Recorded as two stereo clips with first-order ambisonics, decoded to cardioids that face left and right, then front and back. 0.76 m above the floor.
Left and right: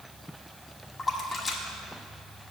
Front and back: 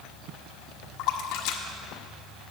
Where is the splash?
20° left, 1.2 m.